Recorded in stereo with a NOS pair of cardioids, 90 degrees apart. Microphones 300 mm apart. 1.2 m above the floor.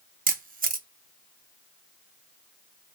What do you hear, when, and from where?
0.3 s a camera shutter: 30° right, 0.8 m